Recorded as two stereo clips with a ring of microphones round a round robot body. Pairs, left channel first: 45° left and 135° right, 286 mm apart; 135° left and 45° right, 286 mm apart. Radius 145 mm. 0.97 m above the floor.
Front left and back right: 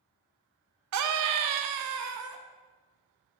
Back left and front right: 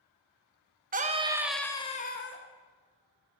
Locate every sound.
0.9 s a scream: 105° right, 1.3 m; by 2.4 s straight behind, 1.3 m